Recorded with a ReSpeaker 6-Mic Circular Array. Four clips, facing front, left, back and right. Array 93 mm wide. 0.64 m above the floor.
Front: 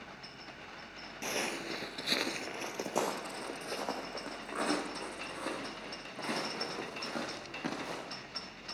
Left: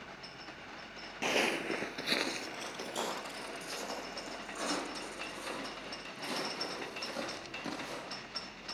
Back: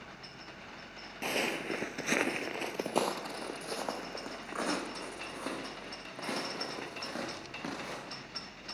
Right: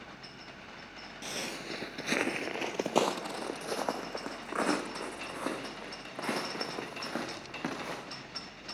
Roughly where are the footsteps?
Left.